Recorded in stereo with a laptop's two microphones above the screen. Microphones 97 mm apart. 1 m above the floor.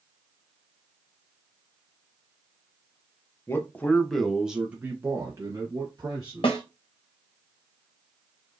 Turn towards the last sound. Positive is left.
turn(degrees=65)  # may be behind; listen again after turning